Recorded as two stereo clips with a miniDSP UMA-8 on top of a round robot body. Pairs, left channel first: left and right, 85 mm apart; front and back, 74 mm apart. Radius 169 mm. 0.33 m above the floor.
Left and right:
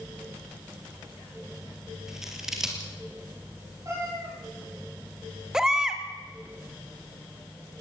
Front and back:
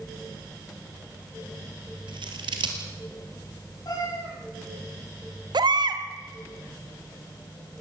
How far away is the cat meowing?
About 9.5 m.